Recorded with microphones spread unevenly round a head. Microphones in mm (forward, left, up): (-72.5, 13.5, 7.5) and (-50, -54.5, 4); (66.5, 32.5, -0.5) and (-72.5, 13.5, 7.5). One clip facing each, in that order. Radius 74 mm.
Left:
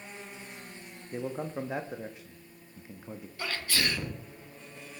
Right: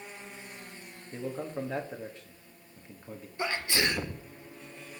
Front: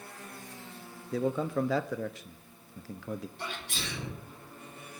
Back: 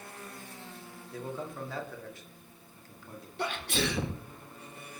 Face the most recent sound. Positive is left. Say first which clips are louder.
# right 3 dB, back 8 dB
turn(degrees=-135)